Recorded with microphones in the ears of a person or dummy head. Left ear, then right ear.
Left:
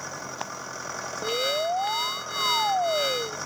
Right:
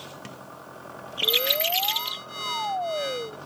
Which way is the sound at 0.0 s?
65° left (ahead or behind).